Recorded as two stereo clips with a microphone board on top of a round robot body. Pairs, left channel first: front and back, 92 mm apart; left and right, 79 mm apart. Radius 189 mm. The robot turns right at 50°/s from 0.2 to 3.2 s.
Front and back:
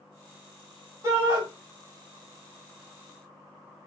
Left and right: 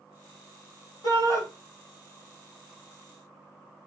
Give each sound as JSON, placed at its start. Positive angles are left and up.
{"t": 1.0, "sound": "a shout", "azimuth_deg": 125, "distance_m": 2.5}